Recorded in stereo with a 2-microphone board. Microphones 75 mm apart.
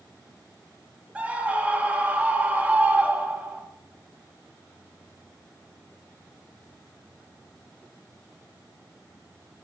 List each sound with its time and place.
1.1 s a scream: 20° right (ahead or behind), 3 m